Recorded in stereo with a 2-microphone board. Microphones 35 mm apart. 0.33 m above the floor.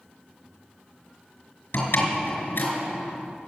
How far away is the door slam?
About 4.5 m.